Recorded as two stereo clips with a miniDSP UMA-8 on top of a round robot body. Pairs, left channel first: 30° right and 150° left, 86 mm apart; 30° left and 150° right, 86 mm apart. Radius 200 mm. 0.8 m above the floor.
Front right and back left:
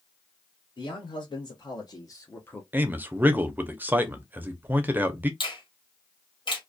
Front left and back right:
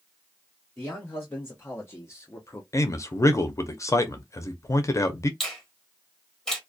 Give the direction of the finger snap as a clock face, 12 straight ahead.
2 o'clock.